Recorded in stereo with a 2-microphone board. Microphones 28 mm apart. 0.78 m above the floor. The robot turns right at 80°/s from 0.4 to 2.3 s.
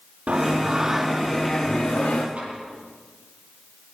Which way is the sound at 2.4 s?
45° right (ahead or behind).